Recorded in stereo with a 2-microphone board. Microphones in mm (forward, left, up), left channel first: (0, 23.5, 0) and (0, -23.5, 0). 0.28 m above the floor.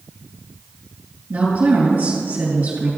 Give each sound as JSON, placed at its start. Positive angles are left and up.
{"t": 1.3, "sound": "a woman speaking", "side_deg": -50, "distance_m": 3.5}